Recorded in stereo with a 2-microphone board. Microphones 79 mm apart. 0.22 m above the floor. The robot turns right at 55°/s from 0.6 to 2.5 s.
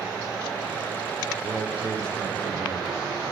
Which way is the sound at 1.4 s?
165° right.